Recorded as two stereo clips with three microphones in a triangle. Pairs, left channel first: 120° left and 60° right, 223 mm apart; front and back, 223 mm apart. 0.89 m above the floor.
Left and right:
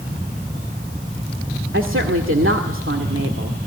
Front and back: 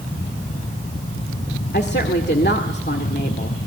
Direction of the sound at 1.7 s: 40° right.